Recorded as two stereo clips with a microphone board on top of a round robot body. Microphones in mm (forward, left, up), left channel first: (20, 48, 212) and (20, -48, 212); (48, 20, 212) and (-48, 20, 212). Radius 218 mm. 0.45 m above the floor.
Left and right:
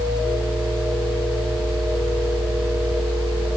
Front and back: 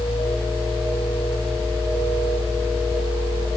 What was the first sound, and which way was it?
Only background noise.